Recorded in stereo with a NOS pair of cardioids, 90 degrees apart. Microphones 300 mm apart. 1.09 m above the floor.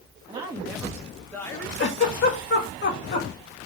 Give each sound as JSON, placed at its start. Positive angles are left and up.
{"t": 0.3, "sound": "a woman speaking", "azimuth_deg": -15, "distance_m": 1.4}
{"t": 1.8, "sound": "a giggle", "azimuth_deg": 40, "distance_m": 1.9}